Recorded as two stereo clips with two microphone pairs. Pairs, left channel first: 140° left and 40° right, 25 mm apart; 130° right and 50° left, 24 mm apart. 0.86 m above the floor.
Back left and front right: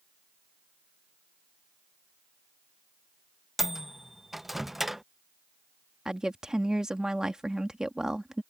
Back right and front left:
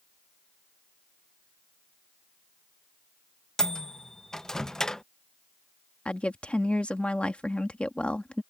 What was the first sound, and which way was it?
A microwave, 105° right.